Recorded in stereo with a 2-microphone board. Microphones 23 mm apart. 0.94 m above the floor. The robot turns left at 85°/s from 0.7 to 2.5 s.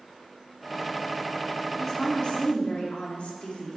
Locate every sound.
1.8 s a woman speaking: straight behind, 2.5 m; by 3.8 s 115° left, 2.5 m